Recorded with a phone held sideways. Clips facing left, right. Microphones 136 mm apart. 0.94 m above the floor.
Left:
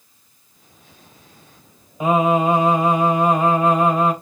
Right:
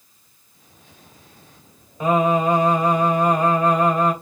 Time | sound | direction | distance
2.0 | singing | 10° left (ahead or behind) | 3.5 m